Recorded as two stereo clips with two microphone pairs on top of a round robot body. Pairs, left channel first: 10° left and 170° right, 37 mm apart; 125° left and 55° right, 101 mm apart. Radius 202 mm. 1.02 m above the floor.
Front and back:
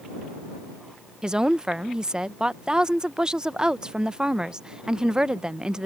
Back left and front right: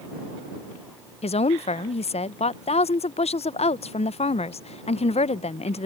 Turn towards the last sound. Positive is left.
turn(degrees=115)